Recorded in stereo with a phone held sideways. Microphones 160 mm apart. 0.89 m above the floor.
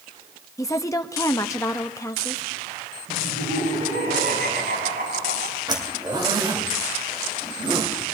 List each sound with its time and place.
0.6 s a woman speaking: 20° left (ahead or behind), 0.8 m
3.1 s laughter: 80° right, 8 m
5.7 s a zipper: 25° right (ahead or behind), 2.5 m